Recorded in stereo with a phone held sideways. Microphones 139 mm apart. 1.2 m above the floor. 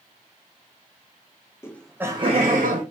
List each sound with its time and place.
1.6 s laughter: 20° left (ahead or behind), 0.9 m; by 2.8 s 75° right (ahead or behind), 1.1 m